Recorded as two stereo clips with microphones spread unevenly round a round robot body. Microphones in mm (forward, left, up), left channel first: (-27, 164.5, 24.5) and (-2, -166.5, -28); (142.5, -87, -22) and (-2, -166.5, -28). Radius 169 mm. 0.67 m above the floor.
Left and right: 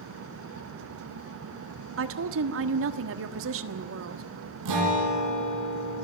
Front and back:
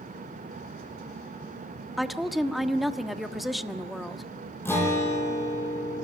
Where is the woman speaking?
65° right, 1.4 m.